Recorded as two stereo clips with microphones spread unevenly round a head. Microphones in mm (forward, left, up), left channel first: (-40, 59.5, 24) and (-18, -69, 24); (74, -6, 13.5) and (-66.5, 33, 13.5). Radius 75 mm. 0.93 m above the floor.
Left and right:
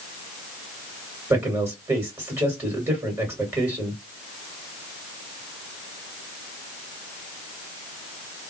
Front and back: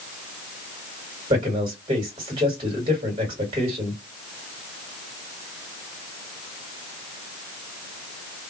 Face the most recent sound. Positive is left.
turn(degrees=-145)